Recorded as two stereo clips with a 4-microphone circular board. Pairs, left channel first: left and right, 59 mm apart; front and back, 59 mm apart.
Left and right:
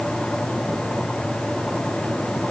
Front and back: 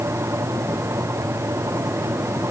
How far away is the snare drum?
I don't hear a snare drum.